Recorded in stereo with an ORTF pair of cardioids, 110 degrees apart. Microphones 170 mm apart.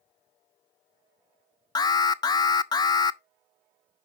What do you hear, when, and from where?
1.8 s an alarm: 25° left, 0.6 m